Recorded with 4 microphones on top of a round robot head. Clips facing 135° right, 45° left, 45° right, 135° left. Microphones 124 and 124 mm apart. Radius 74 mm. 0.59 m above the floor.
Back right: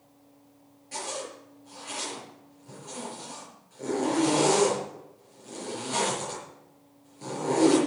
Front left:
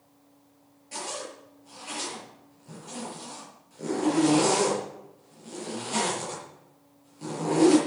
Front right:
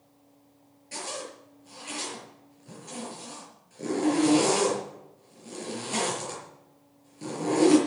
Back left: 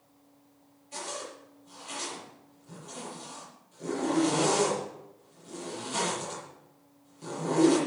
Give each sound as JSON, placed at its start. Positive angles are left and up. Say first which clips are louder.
{"t": 0.9, "sound": "a zipper", "louder": "back right 1 dB, front right 1 dB", "azimuth_deg": -45, "distance_m": 6.0}